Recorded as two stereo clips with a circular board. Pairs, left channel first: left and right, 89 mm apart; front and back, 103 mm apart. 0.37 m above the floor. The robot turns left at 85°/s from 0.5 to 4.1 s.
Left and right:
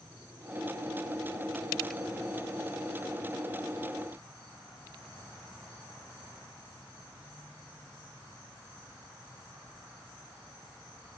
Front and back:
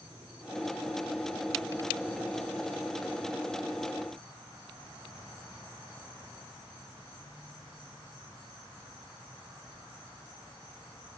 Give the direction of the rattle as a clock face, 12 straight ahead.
I don't hear a rattle.